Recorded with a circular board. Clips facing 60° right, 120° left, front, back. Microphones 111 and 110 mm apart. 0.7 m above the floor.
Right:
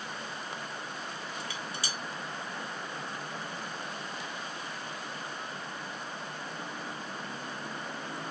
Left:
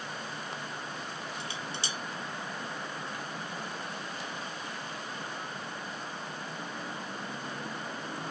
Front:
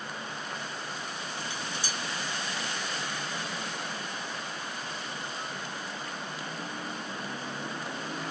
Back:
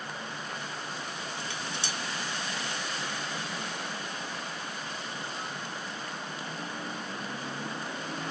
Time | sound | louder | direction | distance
1.4 | dishes clattering | even, front 1 dB | 175° right | 1.4 m